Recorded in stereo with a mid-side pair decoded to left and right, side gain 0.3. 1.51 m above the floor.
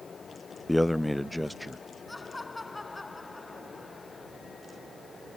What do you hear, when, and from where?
0.7 s a man speaking: 15° left; by 1.9 s straight ahead
2.1 s laughter: 25° left